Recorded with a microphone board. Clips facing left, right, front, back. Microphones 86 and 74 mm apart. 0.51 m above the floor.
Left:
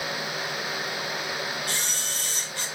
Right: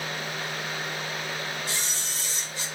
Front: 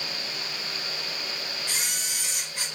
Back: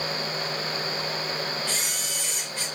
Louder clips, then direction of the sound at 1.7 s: Left 2 dB, back 2 dB; 75° left.